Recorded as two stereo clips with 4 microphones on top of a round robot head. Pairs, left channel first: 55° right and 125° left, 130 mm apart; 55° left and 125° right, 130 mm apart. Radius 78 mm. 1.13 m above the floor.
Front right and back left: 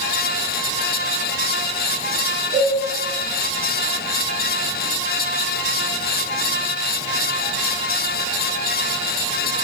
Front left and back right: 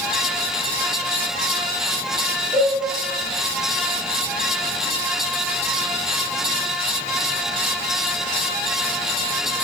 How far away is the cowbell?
About 4 m.